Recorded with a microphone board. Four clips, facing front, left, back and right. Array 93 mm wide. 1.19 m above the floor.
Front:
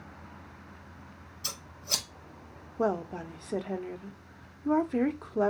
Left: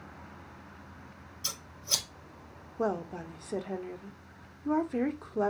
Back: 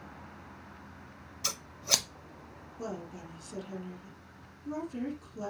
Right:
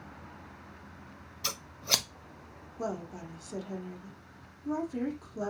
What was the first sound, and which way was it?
Scissors, 130° right.